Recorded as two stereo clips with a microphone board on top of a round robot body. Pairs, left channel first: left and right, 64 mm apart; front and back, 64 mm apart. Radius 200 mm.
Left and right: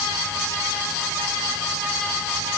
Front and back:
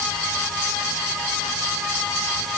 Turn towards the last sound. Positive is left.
No sound to turn to.